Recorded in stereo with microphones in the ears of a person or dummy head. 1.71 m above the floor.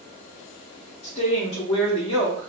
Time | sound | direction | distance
1.0 | a woman speaking | 25° left (ahead or behind) | 0.5 m